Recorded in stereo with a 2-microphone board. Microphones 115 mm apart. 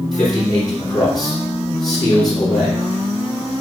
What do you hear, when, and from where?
0.1 s a man speaking: 35° left (ahead or behind), 3 m